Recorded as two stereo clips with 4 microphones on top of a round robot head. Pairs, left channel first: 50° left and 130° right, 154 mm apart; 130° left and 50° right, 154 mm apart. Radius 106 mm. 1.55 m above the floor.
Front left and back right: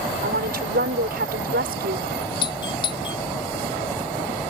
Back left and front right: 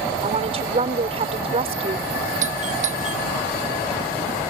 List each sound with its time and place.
0.2 s a woman speaking: 100° right
2.4 s a doorbell: 10° right